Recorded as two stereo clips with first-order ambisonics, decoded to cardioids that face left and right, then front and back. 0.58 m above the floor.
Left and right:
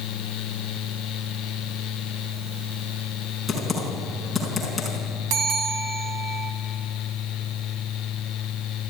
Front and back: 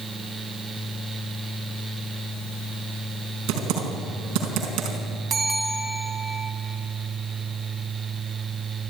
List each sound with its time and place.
3.5 s typing on a keyboard: 175° left, 5 m
5.3 s a bell: 120° right, 2 m